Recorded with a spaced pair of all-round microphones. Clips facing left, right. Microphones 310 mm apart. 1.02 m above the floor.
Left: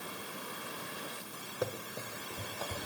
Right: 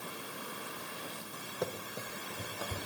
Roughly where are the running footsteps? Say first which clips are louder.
Left 1 dB; centre.